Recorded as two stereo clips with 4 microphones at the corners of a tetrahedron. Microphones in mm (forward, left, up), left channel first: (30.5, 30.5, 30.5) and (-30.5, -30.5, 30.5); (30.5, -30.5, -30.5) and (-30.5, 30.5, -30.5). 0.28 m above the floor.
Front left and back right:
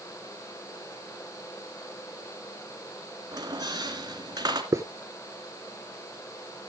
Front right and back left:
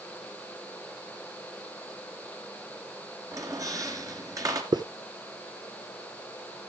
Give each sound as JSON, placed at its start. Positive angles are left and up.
{"t": 3.3, "sound": "a squeak", "azimuth_deg": -175, "distance_m": 2.5}
{"t": 4.7, "sound": "a hiss", "azimuth_deg": 170, "distance_m": 0.9}